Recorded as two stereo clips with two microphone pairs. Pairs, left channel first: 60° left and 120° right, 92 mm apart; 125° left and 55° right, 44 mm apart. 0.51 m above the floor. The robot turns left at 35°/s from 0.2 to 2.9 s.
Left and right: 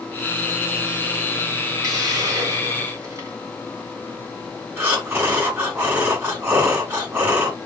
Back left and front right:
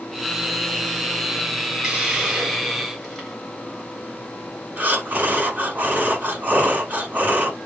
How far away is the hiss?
About 1.4 m.